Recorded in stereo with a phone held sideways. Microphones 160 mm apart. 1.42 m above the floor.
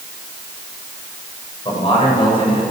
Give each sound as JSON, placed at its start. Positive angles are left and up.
{"t": 1.6, "sound": "a man speaking", "side_deg": 30, "distance_m": 6.5}